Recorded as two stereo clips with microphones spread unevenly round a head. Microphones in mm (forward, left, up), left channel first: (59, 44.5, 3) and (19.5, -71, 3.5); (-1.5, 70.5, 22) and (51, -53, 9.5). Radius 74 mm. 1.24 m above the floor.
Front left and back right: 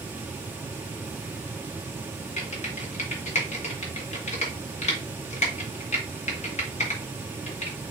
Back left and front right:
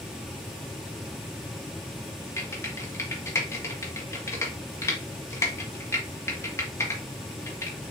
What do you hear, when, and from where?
2.4 s typing on a keyboard: 40° left, 1.6 m